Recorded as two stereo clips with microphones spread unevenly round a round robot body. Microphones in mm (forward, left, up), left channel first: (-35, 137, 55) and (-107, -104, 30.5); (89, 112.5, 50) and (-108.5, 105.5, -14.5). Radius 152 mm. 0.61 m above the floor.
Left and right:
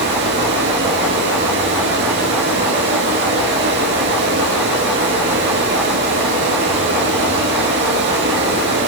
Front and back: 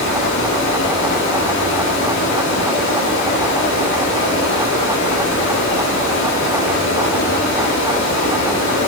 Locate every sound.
0.0 s running water: 50° right, 3 m